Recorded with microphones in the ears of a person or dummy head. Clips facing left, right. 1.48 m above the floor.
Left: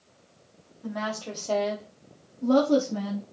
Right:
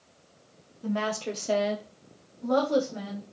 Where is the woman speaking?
45° right (ahead or behind), 1.1 m; by 3.2 s 65° left (ahead or behind), 1.1 m.